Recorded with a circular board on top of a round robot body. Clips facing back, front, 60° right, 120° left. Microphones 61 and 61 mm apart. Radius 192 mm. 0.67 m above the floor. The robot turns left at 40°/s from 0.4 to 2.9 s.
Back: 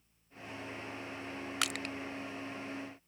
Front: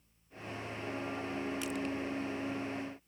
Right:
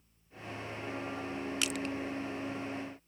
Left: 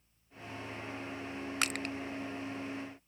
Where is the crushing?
170° left; by 1.9 s 155° left.